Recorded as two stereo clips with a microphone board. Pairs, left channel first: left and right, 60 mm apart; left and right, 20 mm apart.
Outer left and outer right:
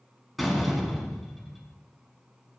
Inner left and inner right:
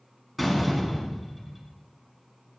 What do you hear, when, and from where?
0.4 s a door slam: centre (ahead or behind), 4.5 m